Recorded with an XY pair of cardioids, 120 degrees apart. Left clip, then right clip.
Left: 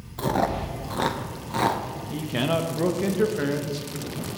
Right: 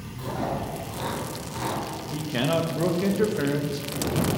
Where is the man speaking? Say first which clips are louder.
Even; 10° left, 0.8 m.